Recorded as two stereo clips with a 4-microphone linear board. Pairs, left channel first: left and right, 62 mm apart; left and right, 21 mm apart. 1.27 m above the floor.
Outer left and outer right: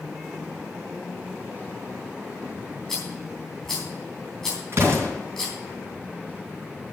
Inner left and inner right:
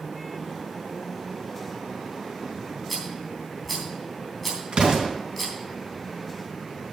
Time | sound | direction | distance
2.9 | a rattle | 5° left (ahead or behind) | 3.5 m
4.7 | an explosion | 40° right (ahead or behind) | 3.5 m